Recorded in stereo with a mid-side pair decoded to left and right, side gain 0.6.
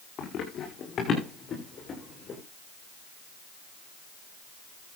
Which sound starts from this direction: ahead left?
Running footsteps, at 0.2 s.